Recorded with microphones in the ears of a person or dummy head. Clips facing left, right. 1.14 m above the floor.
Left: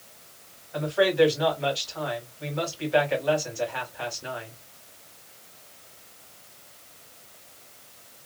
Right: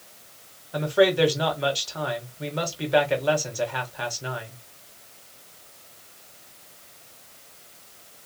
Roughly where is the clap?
I don't hear a clap.